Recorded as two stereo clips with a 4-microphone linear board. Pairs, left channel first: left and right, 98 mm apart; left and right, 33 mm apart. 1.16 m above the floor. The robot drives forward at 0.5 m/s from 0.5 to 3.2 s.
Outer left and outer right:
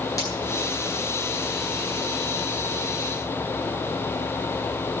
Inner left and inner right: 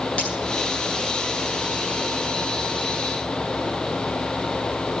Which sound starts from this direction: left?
Breaking glass, at 0.2 s.